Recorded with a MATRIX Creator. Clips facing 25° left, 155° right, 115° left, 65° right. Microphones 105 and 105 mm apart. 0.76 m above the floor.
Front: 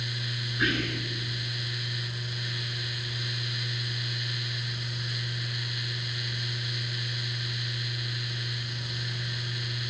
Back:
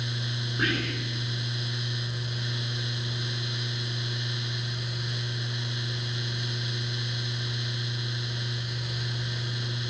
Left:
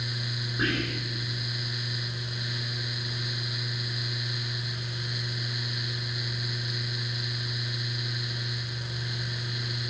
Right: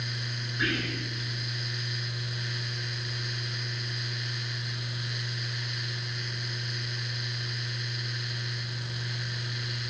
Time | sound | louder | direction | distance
0.6 | whispering | even, left 2 dB | 165° left | 3 m